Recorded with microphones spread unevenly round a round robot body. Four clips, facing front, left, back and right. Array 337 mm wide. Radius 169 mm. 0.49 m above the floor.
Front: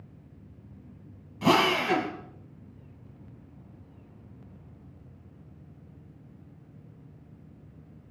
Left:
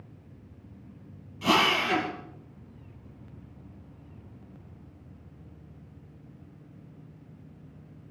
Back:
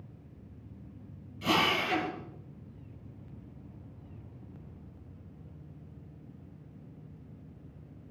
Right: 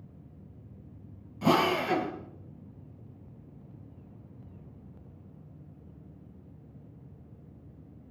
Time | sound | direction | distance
1.4 | a drill | 20° right | 3 m